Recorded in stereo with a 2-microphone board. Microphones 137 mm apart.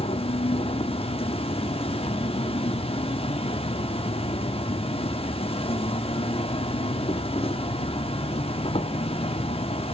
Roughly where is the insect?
Left.